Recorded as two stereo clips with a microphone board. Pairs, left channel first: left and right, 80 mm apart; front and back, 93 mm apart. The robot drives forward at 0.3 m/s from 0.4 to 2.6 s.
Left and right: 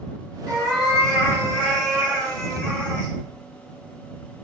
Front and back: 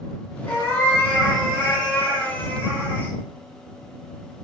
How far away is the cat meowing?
About 1.9 m.